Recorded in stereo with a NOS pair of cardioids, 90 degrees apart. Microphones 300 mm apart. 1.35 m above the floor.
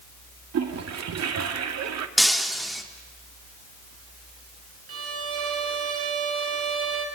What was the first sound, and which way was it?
A toilet flushing, 60° right.